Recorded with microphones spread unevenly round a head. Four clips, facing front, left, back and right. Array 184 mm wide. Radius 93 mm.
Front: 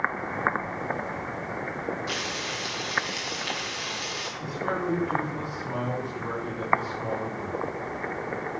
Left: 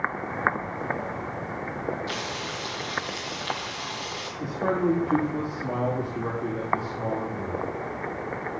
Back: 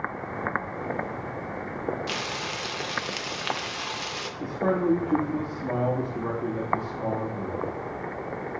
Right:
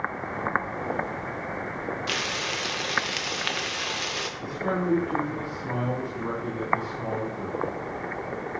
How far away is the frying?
About 1.0 m.